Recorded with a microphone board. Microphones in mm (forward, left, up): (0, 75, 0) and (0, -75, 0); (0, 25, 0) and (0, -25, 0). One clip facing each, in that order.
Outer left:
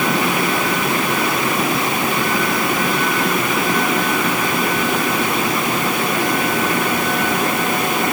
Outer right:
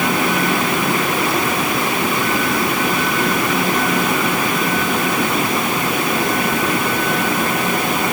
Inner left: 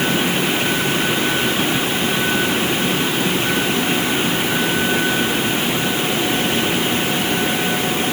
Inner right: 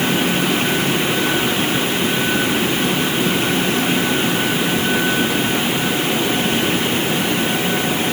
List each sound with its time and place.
Only background noise.